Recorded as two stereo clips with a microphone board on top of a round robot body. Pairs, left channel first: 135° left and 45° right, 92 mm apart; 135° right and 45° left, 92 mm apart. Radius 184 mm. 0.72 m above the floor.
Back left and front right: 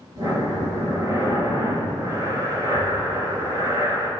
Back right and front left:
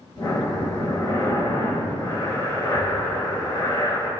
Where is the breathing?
85° right, 3 m.